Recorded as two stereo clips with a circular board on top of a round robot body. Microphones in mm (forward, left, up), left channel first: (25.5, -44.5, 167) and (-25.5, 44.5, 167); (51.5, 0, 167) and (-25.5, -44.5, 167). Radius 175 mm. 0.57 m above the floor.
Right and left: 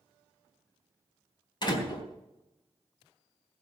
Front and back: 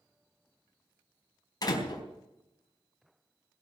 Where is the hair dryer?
I don't hear a hair dryer.